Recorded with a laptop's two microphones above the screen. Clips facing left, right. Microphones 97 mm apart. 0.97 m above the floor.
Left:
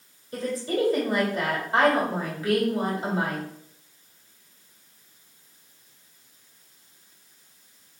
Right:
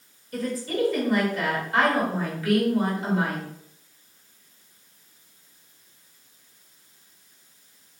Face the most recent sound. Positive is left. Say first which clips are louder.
# even
turn(degrees=30)  # may be behind; listen again after turning